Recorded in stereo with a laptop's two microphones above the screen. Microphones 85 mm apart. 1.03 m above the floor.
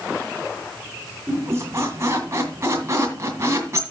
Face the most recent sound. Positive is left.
turn(degrees=-35)  # may be behind; listen again after turning